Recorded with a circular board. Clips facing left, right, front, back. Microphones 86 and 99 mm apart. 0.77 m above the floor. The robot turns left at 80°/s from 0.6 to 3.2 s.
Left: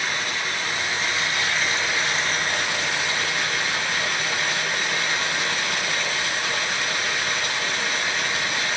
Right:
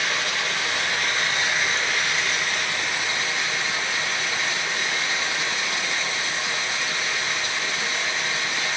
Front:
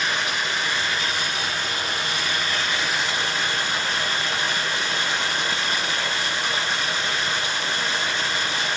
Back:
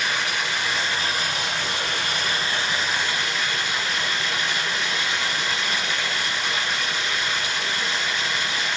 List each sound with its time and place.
0.0 s running water: 90° right, 3 m; by 8.8 s 65° left, 3 m